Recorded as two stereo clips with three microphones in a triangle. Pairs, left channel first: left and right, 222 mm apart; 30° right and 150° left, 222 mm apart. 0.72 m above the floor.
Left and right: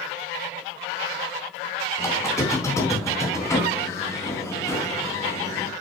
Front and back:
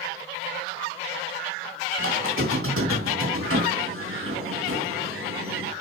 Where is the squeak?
165° left, 3 m.